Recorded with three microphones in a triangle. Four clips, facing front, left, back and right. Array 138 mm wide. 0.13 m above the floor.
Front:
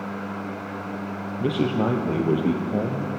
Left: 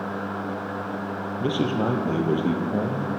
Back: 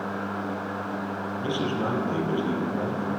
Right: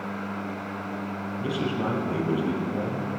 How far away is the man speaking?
About 3.5 m.